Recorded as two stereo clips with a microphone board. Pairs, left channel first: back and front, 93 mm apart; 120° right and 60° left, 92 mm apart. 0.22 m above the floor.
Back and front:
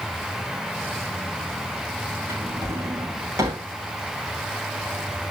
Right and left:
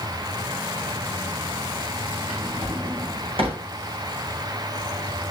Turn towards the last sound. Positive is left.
turn(degrees=60)